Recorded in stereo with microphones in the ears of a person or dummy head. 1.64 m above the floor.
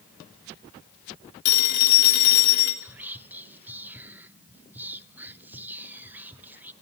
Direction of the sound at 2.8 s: 10° right (ahead or behind).